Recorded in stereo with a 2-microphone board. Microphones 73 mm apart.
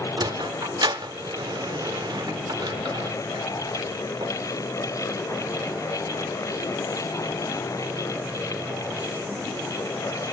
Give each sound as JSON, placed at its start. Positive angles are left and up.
{"t": 0.2, "sound": "a sliding door", "side_deg": -70, "distance_m": 0.6}